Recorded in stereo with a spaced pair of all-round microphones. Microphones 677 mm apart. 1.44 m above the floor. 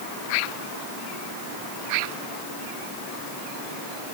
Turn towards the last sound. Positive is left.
No sound to turn to.